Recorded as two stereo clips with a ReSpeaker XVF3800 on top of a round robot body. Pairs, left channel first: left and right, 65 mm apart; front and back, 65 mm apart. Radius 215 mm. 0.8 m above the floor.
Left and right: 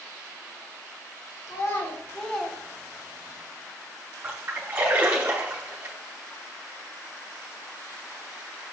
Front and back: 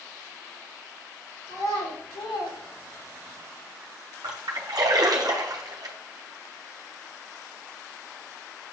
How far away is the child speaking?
About 1.3 m.